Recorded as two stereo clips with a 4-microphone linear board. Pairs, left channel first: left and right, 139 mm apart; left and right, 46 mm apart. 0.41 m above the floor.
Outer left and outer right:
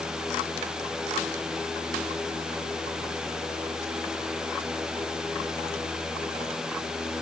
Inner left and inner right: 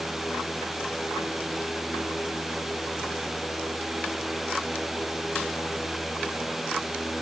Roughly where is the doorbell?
No doorbell in this recording.